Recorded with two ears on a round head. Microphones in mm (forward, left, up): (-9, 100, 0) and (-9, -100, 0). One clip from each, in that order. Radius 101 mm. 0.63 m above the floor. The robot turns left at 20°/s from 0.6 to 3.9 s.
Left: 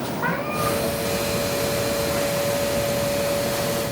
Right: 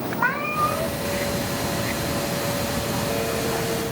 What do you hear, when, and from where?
0.2 s a cat meowing: 60° right (ahead or behind), 3.5 m; by 1.0 s 65° right (ahead or behind), 3.5 m